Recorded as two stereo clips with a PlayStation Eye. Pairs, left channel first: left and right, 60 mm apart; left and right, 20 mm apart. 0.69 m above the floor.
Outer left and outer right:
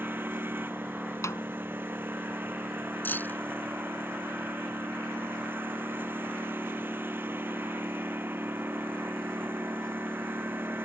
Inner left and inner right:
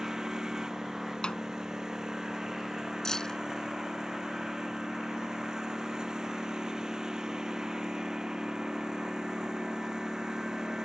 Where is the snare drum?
55° left (ahead or behind).